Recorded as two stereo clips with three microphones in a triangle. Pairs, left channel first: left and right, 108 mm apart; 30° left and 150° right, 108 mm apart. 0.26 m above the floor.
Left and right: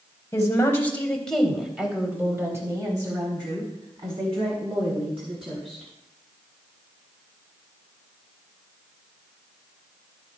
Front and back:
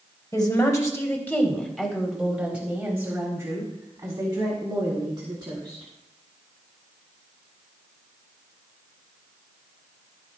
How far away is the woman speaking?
About 1.8 m.